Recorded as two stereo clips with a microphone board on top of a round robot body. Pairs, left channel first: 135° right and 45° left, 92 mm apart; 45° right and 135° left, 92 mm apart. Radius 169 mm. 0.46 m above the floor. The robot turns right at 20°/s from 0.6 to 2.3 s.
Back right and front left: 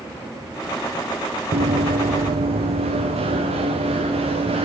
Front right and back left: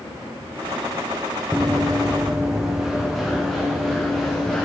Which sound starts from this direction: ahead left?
Running footsteps, at 1.5 s.